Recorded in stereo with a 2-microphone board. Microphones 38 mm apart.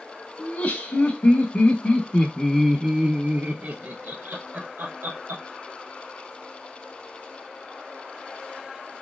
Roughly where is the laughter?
Left.